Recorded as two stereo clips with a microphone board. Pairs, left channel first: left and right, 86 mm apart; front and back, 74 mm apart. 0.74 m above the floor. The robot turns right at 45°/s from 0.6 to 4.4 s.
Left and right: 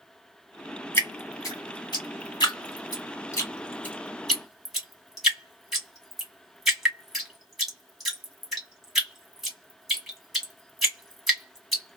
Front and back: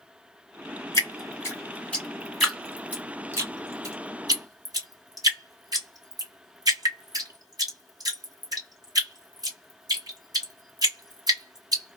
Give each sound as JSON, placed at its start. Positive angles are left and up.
{"t": 0.9, "sound": "dripping", "azimuth_deg": 30, "distance_m": 1.9}